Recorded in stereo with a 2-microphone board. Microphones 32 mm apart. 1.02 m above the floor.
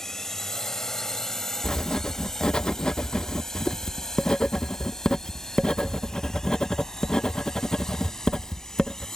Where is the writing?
25° left (ahead or behind).